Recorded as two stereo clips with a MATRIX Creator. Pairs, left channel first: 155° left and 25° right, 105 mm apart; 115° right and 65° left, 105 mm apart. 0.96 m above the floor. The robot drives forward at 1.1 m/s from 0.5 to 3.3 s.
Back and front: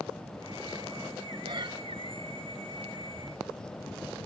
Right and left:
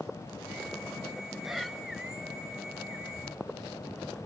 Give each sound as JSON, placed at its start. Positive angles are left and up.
{"t": 1.4, "sound": "breathing", "azimuth_deg": -20, "distance_m": 1.1}